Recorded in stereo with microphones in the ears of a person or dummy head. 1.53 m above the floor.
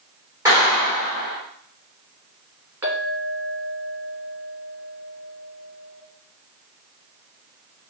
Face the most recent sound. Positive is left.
turn(degrees=-20)  # may be behind; listen again after turning